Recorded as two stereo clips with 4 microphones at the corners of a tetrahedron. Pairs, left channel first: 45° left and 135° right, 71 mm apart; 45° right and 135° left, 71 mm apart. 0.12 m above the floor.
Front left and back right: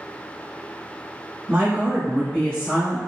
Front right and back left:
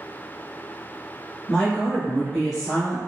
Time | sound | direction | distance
1.5 | a woman speaking | 125° right | 1.5 m